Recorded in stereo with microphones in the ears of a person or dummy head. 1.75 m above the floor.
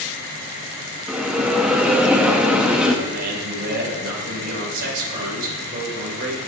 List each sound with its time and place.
1.1 s a bell: 5° right (ahead or behind), 0.6 m
3.0 s a man speaking: 50° right (ahead or behind), 2.5 m